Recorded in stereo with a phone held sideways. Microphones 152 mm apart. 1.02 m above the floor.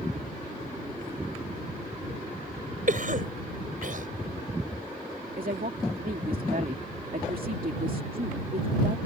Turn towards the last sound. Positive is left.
turn(degrees=-70)  # may be behind; listen again after turning